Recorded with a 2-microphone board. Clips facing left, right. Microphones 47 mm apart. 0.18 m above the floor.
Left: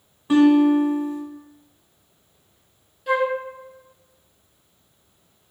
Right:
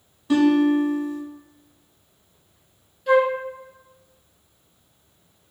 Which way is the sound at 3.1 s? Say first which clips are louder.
Right 4 dB; 5° left (ahead or behind).